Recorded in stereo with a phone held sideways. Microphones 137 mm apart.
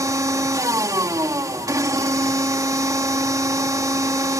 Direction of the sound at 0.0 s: 25° right (ahead or behind).